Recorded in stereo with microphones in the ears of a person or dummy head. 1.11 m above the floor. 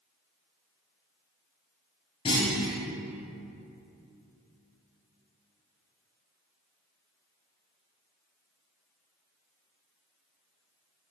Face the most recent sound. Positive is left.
turn(degrees=25)  # may be behind; listen again after turning